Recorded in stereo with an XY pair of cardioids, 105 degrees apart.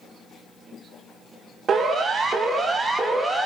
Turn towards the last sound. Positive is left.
turn(degrees=-30)